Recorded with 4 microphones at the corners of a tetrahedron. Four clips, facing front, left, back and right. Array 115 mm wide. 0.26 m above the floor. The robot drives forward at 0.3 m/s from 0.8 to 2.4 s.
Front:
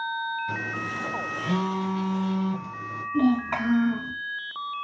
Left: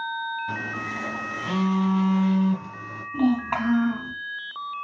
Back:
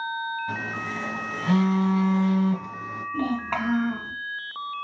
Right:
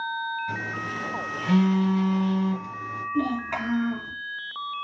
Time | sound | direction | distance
0.5 | a phone buzzing | 150° left | 1.4 m
3.1 | a child speaking | 135° left | 2 m